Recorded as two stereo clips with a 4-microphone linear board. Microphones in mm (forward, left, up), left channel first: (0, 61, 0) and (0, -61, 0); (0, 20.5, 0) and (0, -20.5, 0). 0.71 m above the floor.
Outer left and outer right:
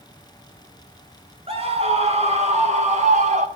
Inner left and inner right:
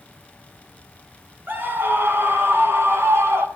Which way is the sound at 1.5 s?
55° right (ahead or behind).